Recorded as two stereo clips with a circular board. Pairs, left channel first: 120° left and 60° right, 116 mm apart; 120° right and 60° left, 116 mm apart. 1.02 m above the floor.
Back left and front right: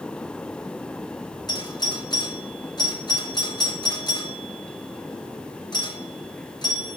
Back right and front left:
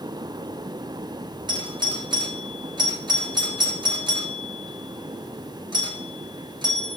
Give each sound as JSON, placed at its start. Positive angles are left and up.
{"t": 1.5, "sound": "a doorbell", "azimuth_deg": 85, "distance_m": 2.0}